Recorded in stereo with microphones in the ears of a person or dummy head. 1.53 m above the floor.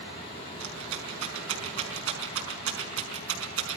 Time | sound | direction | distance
0.6 | a rattle | 75° right (ahead or behind) | 5.5 m